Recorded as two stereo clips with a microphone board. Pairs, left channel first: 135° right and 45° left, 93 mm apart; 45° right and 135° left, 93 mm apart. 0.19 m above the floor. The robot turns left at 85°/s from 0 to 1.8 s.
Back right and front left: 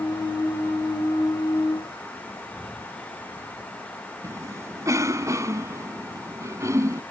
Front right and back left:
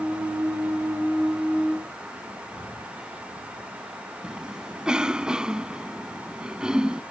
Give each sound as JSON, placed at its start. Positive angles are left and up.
{"t": 2.5, "sound": "breathing", "azimuth_deg": -50}
{"t": 4.2, "sound": "a cough", "azimuth_deg": 60}